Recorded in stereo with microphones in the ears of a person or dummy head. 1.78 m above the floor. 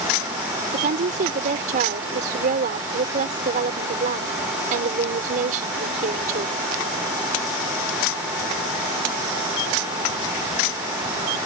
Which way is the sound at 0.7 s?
45° right (ahead or behind).